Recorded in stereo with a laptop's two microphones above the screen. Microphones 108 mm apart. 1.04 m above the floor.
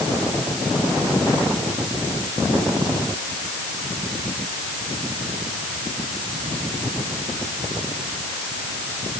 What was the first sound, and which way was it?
Only background noise.